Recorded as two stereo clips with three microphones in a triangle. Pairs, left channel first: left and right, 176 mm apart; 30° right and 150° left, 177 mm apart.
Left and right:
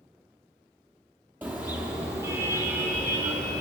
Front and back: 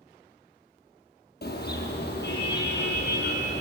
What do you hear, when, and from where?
1.4 s a car horn: 10° right, 5 m; by 3.6 s 20° right, 6 m